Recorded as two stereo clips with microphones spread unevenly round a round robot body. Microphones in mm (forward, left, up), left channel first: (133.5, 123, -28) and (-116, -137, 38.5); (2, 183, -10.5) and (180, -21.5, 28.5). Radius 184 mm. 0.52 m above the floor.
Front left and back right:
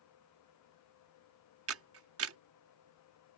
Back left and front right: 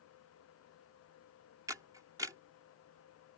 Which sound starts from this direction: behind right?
A camera shutter, at 1.7 s.